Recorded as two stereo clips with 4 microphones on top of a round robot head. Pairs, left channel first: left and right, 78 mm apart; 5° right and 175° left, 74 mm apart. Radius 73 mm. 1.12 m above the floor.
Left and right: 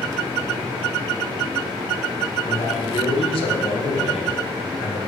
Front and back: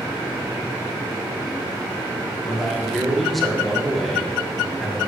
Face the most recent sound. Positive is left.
turn(degrees=85)